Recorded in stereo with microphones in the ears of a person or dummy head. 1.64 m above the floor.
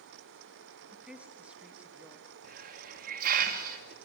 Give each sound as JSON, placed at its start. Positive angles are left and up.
{"t": 0.9, "sound": "a woman speaking", "side_deg": -5, "distance_m": 3.0}
{"t": 2.4, "sound": "a hiss", "side_deg": -55, "distance_m": 2.0}